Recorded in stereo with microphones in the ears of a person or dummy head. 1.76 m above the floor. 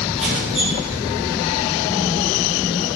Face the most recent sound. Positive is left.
turn(degrees=-5)  # may be behind; listen again after turning